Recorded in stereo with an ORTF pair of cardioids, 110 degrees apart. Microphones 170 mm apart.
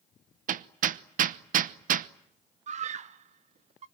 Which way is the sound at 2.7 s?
45° right.